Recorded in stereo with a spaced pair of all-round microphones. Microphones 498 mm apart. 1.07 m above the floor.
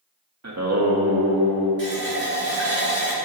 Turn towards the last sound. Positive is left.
turn(degrees=-30)  # may be behind; listen again after turning